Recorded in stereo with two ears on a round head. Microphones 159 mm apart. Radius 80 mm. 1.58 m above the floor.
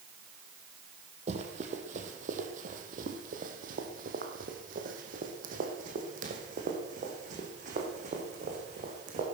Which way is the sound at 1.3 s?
40° right (ahead or behind).